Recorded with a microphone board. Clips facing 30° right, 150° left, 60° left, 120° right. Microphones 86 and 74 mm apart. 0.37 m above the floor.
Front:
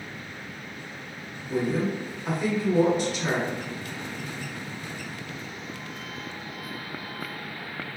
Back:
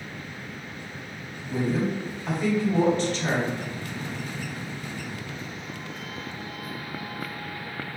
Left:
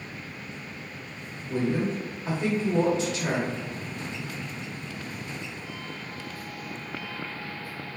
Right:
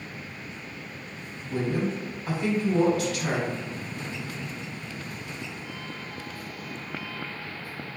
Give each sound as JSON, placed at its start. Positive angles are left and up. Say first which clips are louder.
{"t": 1.5, "sound": "a woman speaking", "louder": "even, left 1 dB", "azimuth_deg": 40, "distance_m": 0.9}